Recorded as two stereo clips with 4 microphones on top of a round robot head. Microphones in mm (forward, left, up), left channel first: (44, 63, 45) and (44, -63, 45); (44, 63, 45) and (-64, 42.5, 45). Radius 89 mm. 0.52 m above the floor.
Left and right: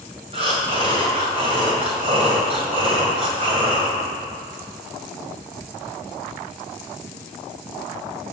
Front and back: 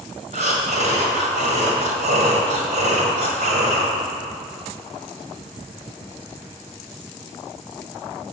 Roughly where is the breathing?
Behind right.